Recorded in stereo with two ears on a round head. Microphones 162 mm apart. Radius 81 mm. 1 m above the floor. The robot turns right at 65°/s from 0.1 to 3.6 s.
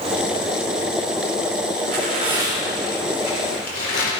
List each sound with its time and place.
1.8 s tearing paper: 60° right, 4 m; by 4.1 s 55° left, 4 m